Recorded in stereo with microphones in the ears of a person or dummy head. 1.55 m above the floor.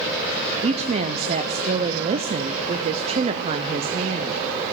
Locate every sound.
0.6 s a woman speaking: 35° right (ahead or behind), 0.6 m